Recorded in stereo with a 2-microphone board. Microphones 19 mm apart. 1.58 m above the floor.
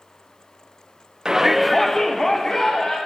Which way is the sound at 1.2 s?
35° right (ahead or behind).